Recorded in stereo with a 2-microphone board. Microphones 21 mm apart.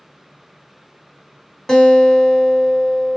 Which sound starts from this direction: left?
A guitar, at 1.7 s.